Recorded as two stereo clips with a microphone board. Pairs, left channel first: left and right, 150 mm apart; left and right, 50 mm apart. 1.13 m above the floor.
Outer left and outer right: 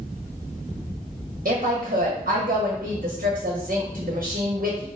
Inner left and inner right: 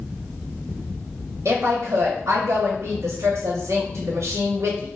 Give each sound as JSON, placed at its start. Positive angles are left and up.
{"t": 1.4, "sound": "a woman speaking", "side_deg": -75, "distance_m": 0.7}